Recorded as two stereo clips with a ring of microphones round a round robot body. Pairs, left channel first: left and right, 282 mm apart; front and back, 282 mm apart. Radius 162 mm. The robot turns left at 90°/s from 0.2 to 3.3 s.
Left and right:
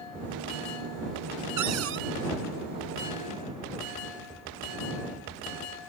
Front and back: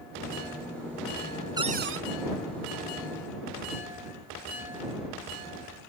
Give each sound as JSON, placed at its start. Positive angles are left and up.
{"t": 1.6, "sound": "a cupboard door", "azimuth_deg": -105}